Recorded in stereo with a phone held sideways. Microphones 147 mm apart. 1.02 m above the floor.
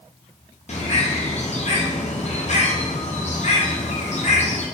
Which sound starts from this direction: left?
A bird, at 0.7 s.